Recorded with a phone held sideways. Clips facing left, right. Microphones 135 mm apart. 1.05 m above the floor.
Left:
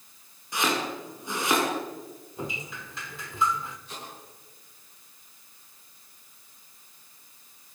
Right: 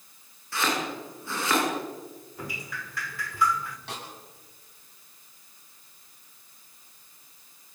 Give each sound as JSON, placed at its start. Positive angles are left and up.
{"t": 0.5, "sound": "chopping", "side_deg": 20, "distance_m": 8.5}
{"t": 2.4, "sound": "dripping", "side_deg": 25, "distance_m": 1.7}
{"t": 3.9, "sound": "a snare drum", "side_deg": -85, "distance_m": 9.0}